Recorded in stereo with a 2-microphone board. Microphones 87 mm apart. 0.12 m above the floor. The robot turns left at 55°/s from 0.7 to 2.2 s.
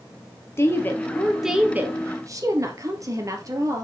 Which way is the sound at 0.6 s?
35° left.